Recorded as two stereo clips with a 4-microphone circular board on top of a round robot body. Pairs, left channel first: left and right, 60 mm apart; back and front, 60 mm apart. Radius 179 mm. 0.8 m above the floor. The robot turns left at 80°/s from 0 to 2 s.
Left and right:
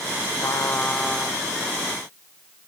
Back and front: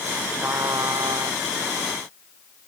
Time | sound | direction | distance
0.4 | a trumpet | 60° left | ?